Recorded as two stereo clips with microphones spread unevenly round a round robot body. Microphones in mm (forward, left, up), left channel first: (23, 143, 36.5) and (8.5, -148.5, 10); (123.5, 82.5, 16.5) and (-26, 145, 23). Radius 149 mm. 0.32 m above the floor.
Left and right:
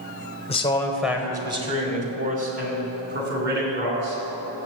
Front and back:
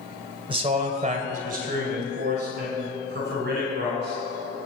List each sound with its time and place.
0.5 s a man speaking: 145° left, 0.9 m; by 4.2 s 150° right, 3.5 m